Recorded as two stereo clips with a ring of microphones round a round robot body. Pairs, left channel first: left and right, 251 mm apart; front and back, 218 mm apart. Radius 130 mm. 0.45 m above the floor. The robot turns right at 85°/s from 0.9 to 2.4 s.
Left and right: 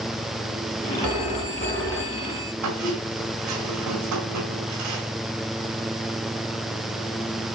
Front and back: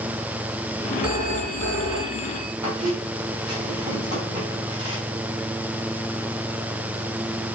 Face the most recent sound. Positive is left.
turn(degrees=-110)